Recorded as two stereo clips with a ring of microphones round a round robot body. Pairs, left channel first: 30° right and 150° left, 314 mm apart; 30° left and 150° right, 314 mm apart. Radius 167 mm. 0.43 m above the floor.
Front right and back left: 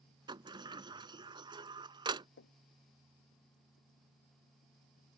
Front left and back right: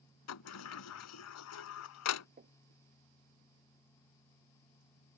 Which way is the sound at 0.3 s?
75° left.